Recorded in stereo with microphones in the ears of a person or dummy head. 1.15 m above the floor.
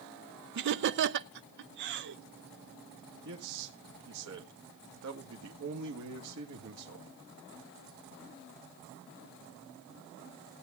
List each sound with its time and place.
0.6 s laughter: 60° right (ahead or behind), 0.6 m
3.2 s a man speaking: 70° right (ahead or behind), 1.6 m